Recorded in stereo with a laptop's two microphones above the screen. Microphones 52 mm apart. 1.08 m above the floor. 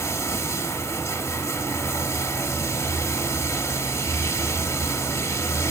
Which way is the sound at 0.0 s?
80° left.